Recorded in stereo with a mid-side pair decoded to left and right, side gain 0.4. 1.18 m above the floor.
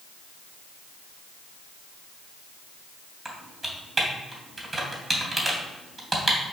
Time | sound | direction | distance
3.2 | typing on a keyboard | 20° right | 2.5 m